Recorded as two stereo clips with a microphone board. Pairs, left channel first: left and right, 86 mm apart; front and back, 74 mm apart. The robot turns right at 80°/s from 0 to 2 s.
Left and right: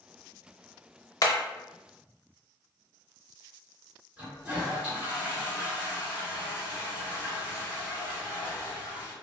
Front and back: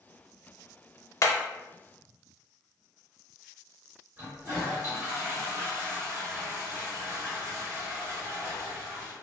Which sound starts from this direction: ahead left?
Hammering, at 1.2 s.